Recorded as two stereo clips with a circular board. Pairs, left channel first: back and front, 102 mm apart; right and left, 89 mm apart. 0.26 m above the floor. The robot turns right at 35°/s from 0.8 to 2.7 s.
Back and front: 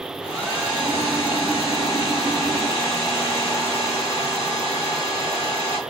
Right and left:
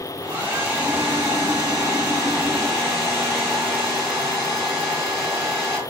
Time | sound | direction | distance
0.2 | a hair dryer | 120° left | 1.7 m